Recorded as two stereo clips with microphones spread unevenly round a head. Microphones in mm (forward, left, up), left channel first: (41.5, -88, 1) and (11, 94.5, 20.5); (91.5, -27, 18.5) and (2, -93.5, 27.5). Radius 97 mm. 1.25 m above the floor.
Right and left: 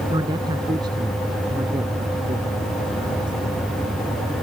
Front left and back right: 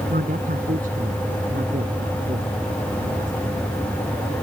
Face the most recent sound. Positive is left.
turn(degrees=170)